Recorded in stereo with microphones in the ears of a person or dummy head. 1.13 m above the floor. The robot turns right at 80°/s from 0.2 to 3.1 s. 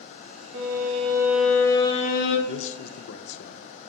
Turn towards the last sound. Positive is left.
turn(degrees=85)